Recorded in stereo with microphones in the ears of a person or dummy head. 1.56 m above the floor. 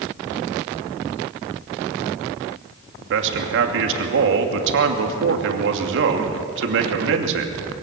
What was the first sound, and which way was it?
A man speaking, 70° right (ahead or behind).